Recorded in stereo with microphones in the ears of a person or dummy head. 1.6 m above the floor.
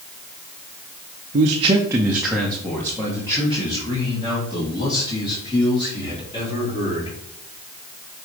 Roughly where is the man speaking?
Right.